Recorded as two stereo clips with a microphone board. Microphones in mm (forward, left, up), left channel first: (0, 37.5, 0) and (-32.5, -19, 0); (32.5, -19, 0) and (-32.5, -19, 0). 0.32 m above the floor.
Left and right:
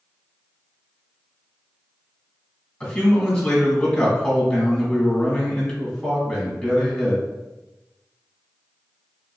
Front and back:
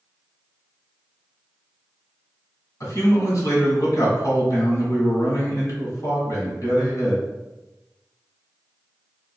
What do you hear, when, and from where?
2.8 s a man speaking: 15° right, 1.9 m